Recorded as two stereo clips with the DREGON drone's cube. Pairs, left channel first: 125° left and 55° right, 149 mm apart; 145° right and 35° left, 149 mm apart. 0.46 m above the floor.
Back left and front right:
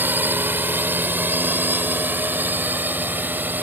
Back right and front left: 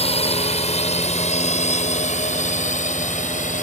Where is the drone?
125° right; by 3.6 s 130° right.